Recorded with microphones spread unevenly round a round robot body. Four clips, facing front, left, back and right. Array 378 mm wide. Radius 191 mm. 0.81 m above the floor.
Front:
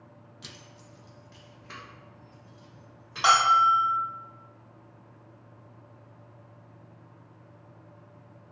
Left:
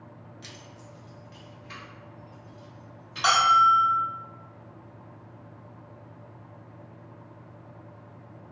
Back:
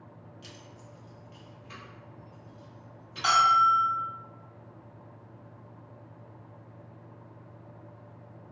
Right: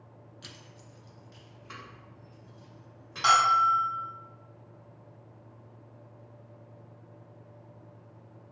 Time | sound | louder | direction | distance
0.4 | keys jangling | left 5 dB, back 1 dB | 10° right | 0.5 m
3.2 | a bell | left 3 dB, front 1 dB | 20° left | 1.9 m